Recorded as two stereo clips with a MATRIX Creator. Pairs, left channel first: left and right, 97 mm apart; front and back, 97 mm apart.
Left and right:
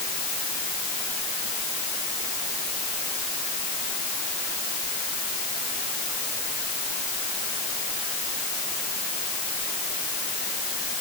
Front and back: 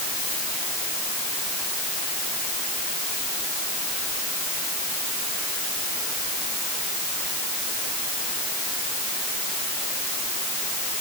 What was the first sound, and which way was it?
Only background noise.